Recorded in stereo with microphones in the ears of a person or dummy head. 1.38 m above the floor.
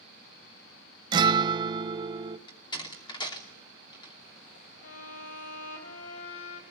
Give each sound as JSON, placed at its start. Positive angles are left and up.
{"t": 1.1, "sound": "a guitar", "side_deg": -25, "distance_m": 0.8}
{"t": 2.5, "sound": "a door slam", "side_deg": 25, "distance_m": 3.0}
{"t": 4.8, "sound": "a violin", "side_deg": 65, "distance_m": 3.0}